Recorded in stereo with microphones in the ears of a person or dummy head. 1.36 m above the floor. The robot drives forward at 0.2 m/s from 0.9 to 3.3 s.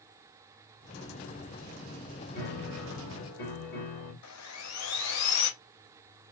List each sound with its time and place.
2.4 s a piano: 55° left (ahead or behind), 2.5 m
4.2 s sawing: 85° left, 0.7 m